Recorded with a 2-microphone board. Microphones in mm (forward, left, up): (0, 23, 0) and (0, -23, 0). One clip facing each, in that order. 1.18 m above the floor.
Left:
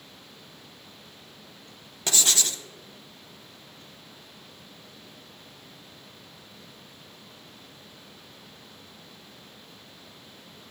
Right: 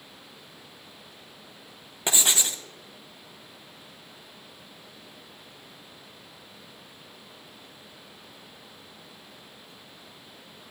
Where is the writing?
20° right (ahead or behind), 0.5 m.